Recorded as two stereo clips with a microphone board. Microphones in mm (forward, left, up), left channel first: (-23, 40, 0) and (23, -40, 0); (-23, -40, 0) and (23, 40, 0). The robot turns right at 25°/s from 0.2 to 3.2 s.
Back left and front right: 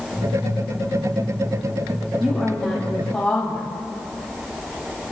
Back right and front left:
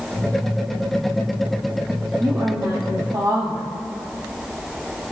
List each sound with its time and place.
2.2 s a woman speaking: 25° left, 1.9 m; by 3.7 s 50° left, 1.9 m